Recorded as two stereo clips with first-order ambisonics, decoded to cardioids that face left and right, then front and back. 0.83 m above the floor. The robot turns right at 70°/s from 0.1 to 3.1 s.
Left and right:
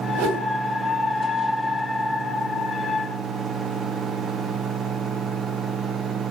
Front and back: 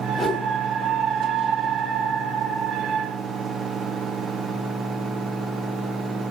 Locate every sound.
0.1 s a whoosh: 85° right, 2.5 m; by 0.5 s 60° right, 2.5 m